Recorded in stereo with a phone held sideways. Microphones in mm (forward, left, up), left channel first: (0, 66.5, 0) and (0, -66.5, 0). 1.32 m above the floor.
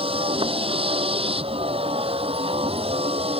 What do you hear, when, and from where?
0.0 s a vehicle: 45° right (ahead or behind)